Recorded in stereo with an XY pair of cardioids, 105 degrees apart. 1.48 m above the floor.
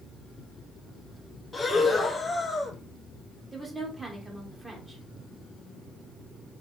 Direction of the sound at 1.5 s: 30° left.